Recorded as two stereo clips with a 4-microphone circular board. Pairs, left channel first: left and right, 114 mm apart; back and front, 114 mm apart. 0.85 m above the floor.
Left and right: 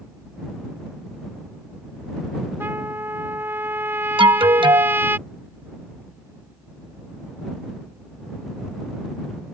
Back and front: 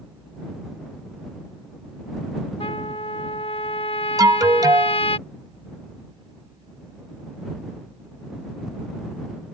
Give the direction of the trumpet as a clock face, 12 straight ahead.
5 o'clock.